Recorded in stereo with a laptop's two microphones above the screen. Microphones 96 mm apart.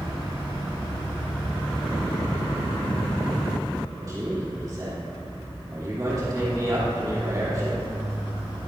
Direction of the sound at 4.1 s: 40° right (ahead or behind).